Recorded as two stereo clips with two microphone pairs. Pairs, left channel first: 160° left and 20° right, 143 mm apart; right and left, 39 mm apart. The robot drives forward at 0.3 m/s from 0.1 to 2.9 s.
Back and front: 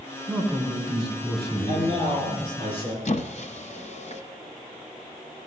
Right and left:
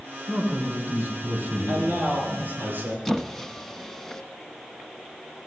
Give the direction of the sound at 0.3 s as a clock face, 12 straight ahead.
10 o'clock.